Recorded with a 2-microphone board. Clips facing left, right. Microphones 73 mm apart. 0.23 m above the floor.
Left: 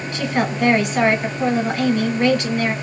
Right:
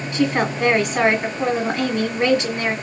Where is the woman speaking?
25° right (ahead or behind), 1.9 m.